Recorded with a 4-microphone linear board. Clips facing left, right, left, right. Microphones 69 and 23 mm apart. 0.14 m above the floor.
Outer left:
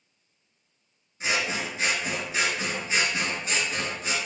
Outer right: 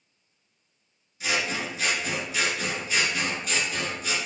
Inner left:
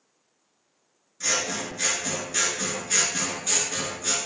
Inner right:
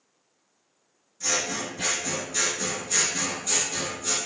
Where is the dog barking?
No dog barking in this recording.